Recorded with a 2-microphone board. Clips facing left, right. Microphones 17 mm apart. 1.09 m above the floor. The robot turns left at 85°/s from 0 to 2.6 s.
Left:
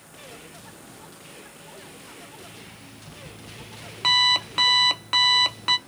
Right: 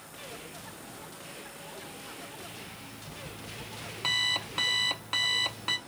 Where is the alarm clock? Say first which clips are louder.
Even; 20° left (ahead or behind), 0.6 m.